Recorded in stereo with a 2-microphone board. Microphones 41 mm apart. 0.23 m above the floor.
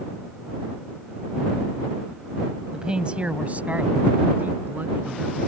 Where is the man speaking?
20° right (ahead or behind); by 5.4 s 55° right (ahead or behind).